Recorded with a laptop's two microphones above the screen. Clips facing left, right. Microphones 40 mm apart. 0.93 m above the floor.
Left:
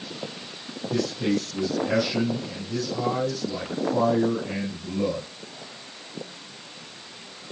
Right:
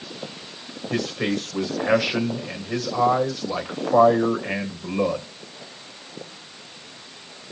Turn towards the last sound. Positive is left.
turn(degrees=-80)